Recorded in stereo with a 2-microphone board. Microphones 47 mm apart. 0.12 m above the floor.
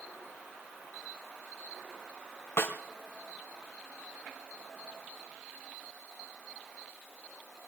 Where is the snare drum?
75° left (ahead or behind), 3 m.